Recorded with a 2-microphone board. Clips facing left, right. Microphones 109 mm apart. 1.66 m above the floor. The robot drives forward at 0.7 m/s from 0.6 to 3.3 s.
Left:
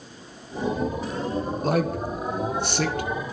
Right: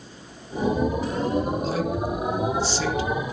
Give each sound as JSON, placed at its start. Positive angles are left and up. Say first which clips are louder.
{"t": 1.6, "sound": "a man speaking", "louder": "left 1 dB", "side_deg": 60, "distance_m": 1.4}